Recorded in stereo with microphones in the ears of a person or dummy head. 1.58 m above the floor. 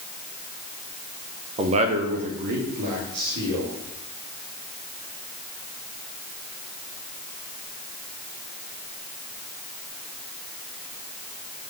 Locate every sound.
1.6 s a man speaking: 25° right (ahead or behind), 0.8 m; by 3.7 s 50° right (ahead or behind), 4 m